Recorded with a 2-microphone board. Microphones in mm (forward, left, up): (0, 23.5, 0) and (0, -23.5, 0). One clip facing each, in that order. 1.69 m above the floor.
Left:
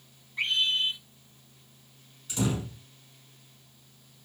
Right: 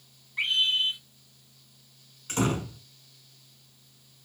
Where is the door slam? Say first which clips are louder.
Right 3 dB; 50° right (ahead or behind), 4.5 m.